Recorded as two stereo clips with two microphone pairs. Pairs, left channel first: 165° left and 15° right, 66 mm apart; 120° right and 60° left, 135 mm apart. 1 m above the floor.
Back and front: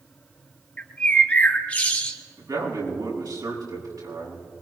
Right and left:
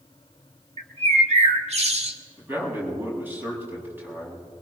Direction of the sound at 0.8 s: 95° left.